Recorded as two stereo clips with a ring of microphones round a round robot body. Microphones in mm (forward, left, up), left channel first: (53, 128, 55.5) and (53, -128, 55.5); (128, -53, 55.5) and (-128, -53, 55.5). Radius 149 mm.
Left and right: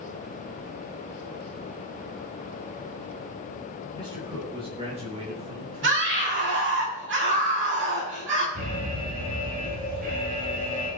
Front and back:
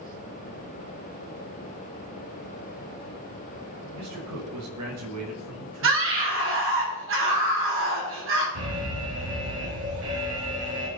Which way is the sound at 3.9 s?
165° right.